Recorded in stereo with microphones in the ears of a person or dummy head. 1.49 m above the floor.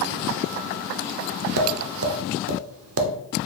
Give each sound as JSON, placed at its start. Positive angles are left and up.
{"t": 1.6, "sound": "tapping", "side_deg": -65, "distance_m": 0.5}